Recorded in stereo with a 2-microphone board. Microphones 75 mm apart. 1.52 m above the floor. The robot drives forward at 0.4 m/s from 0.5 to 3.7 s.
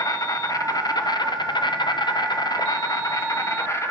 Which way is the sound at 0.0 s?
55° left (ahead or behind).